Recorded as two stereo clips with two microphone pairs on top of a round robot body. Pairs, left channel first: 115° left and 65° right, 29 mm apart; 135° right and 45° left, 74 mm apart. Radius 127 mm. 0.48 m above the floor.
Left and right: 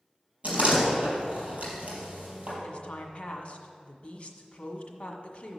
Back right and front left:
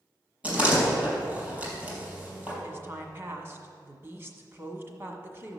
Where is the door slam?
25° right, 4 m.